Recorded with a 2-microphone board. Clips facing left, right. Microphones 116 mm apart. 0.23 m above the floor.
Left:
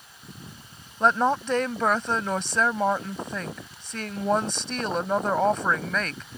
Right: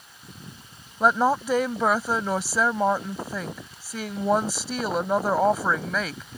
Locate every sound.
1.0 s a woman speaking: 5° right (ahead or behind)